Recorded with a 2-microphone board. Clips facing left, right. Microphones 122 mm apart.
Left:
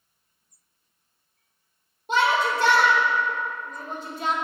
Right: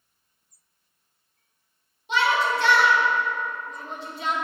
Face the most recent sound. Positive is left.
turn(degrees=45)  # may be behind; listen again after turning